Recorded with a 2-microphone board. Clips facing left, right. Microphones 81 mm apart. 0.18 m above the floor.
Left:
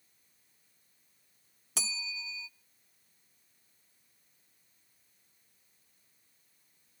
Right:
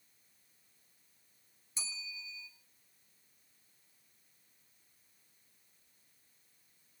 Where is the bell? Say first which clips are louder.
Left 7 dB; 85° left, 0.6 m.